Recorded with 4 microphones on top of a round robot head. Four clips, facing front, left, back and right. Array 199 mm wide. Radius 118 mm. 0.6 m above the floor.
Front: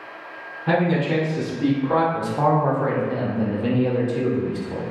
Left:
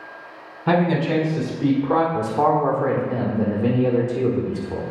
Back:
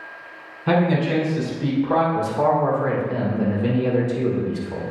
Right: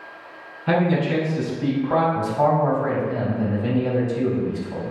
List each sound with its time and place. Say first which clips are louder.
0.7 s a man speaking: left 1 dB, back 1 dB; 95° left, 2.5 m; by 2.0 s 65° left, 2.5 m
2.1 s a man speaking: left 1 dB, back 1 dB; 70° left, 1.7 m